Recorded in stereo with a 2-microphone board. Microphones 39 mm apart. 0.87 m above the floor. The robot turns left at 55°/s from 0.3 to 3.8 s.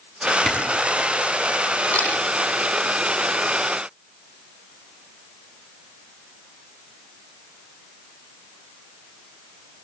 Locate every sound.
0.5 s a camera shutter: 15° left (ahead or behind), 7 m; by 0.6 s 10° left (ahead or behind), 7 m
1.9 s a camera shutter: 40° left (ahead or behind), 7 m; by 2.1 s 50° left (ahead or behind), 7 m